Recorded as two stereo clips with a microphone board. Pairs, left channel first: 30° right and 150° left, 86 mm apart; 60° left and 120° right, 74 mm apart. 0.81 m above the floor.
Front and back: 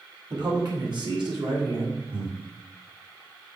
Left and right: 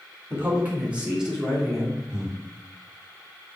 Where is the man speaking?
Straight behind, 2.5 m; by 2.0 s 140° left, 2.5 m.